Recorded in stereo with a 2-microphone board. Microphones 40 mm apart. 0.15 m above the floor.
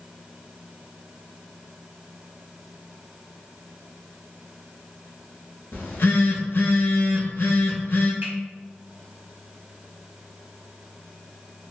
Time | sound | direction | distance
5.7 | a phone buzzing | 60° left (ahead or behind) | 0.8 m
8.2 | a finger snap | 45° right (ahead or behind) | 1.5 m